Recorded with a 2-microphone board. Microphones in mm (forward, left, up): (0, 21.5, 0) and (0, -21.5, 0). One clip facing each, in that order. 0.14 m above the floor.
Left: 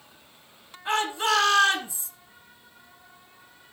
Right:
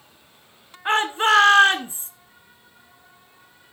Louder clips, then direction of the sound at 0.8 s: Right 6 dB; 40° right (ahead or behind).